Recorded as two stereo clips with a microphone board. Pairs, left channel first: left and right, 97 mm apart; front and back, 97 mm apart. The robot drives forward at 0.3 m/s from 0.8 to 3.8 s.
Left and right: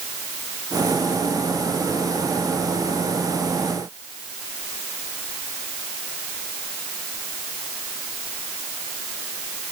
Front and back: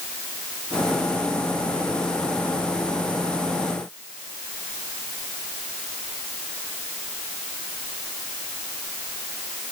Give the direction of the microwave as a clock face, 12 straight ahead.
I don't hear a microwave.